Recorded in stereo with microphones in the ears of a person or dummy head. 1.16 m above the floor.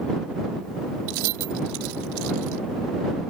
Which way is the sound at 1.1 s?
75° right (ahead or behind).